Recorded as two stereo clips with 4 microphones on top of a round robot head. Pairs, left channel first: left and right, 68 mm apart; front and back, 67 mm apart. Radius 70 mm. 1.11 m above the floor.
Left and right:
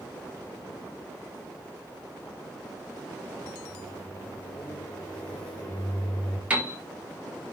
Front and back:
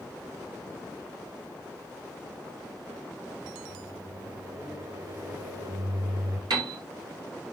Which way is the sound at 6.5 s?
160° right.